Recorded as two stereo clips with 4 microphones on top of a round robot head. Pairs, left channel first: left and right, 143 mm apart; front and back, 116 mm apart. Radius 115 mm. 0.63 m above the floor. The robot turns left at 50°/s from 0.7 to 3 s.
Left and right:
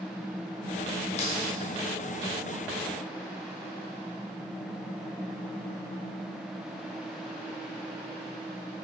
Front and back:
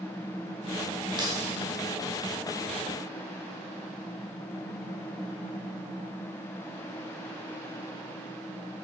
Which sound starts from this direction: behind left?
Keys jangling, at 1.2 s.